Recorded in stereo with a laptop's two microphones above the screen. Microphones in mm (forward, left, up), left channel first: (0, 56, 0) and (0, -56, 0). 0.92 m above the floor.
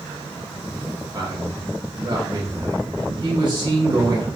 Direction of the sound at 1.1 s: 40° right (ahead or behind).